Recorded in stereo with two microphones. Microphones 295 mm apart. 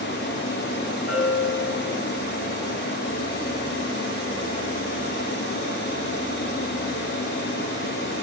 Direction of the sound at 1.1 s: 65° left (ahead or behind).